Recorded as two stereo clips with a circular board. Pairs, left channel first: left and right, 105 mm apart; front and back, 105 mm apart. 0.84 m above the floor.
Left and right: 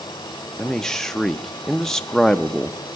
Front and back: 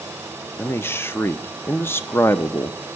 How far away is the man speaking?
About 0.5 m.